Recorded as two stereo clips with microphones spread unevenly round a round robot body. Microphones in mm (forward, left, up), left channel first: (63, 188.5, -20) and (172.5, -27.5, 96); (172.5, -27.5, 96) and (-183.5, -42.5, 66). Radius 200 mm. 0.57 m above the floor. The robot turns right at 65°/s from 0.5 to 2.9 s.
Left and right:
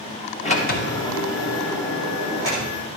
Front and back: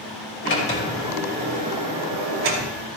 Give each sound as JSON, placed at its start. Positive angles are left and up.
{"t": 0.4, "sound": "a sliding door", "azimuth_deg": 65, "distance_m": 2.5}